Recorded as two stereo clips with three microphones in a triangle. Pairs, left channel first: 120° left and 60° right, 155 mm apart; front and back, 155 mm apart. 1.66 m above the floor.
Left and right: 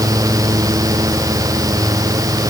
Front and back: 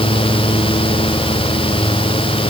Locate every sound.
Only background noise.